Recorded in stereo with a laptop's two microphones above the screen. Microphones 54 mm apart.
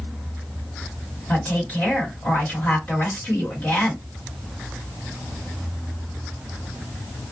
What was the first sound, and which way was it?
A woman speaking, 30° left (ahead or behind).